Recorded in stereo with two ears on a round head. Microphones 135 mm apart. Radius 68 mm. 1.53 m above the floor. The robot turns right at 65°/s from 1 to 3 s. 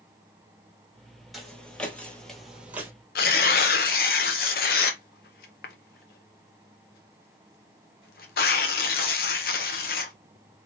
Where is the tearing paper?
70° left (ahead or behind), 1.1 m.